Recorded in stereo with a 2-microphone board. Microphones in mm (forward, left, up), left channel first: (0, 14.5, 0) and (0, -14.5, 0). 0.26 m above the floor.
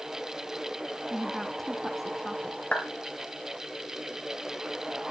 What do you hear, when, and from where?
1.1 s a woman speaking: 5° right (ahead or behind), 2.5 m
2.7 s a clap: 45° left (ahead or behind), 3.5 m